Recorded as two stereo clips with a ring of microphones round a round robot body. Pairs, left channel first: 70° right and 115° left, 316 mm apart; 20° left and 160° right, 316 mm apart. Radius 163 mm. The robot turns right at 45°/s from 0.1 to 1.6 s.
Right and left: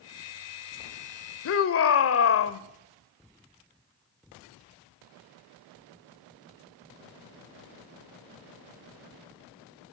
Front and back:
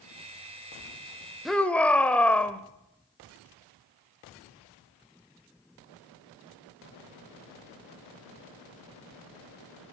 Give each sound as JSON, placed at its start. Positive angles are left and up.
{"t": 1.4, "sound": "a shout", "azimuth_deg": -70, "distance_m": 1.2}